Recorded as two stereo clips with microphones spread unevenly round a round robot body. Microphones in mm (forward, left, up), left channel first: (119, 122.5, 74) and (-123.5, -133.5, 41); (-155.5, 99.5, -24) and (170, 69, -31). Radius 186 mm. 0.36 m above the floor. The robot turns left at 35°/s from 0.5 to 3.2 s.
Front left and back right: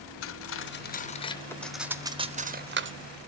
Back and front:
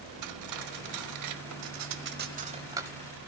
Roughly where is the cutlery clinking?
Ahead.